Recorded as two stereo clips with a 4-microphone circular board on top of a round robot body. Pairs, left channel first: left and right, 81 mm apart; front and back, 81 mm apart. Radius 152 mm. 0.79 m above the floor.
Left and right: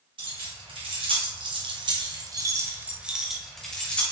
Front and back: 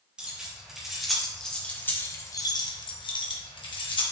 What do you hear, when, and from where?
0.2 s keys jangling: 100° right, 2.5 m; by 4.0 s 15° left, 1.7 m